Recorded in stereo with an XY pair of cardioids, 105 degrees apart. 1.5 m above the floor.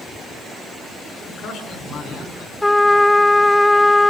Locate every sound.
1.3 s a man speaking: 65° left, 8 m; by 2.5 s 70° left, 6.5 m
2.6 s a trumpet: 15° left, 1.0 m